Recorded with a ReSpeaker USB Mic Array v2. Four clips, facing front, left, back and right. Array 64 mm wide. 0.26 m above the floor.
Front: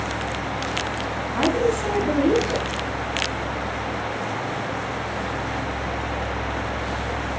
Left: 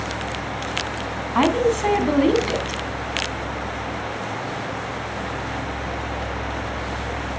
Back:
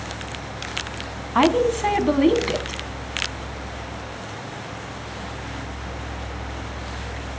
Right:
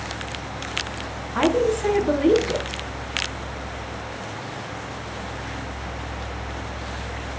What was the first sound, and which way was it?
A woman speaking, 155° left.